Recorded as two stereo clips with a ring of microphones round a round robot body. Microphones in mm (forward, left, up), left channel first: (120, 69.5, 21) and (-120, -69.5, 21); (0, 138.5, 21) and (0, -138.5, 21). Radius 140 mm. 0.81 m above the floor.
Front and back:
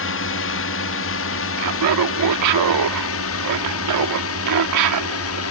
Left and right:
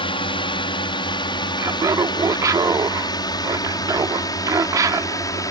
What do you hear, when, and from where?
0.0 s a drone: 25° left; by 5.5 s 15° left
1.6 s laughter: 170° right